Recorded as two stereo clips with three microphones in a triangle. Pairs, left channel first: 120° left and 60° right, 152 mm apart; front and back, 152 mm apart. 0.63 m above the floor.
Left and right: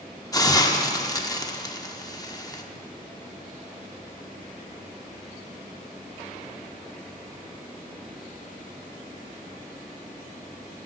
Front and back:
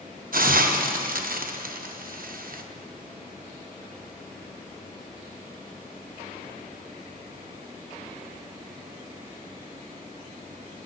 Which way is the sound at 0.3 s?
Straight behind.